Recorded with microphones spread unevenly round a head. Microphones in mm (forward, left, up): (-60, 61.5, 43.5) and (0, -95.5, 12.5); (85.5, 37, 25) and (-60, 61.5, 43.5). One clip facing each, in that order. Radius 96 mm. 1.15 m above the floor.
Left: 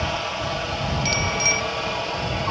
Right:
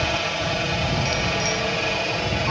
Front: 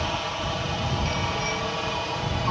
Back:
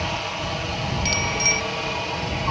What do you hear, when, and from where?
0.0 s a helicopter: 105° right; by 2.5 s 110° right
1.1 s a bicycle bell: 165° left